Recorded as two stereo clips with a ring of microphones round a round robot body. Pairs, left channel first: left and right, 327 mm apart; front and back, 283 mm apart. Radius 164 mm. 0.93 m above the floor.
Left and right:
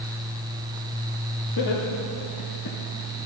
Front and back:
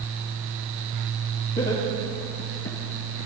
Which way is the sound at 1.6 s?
60° left.